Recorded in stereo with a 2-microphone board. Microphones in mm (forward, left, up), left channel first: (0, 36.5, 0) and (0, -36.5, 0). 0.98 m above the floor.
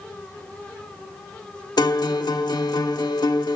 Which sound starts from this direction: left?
A guitar, at 1.8 s.